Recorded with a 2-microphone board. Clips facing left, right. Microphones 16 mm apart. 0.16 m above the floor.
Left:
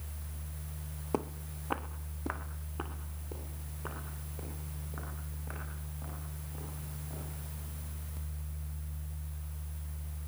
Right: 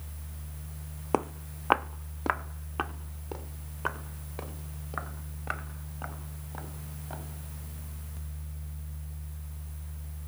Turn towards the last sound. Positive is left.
turn(degrees=-70)  # may be behind; listen again after turning